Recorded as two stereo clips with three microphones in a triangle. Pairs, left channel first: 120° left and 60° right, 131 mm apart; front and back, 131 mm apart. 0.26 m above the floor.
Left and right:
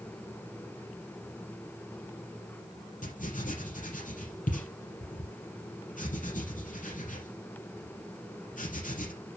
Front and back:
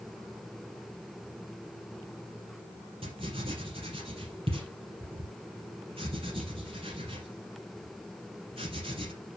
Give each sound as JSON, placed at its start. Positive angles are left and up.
{"t": 3.0, "sound": "writing", "azimuth_deg": 135, "distance_m": 4.0}